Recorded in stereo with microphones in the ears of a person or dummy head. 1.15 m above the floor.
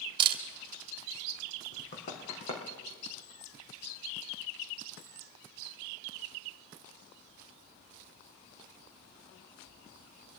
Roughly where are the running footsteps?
Left.